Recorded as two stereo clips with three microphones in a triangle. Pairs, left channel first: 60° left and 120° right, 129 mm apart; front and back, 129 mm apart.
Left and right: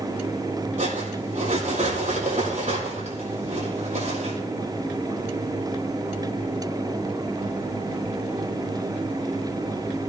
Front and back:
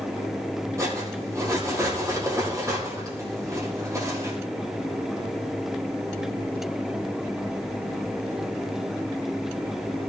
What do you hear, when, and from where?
0.8 s cutlery clinking: 115° right, 5.5 m